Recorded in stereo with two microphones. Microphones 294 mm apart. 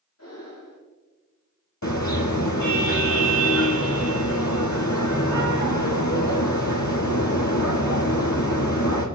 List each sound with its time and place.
0.2 s breathing: 60° left (ahead or behind), 7 m
1.8 s a car horn: 70° left (ahead or behind), 2.5 m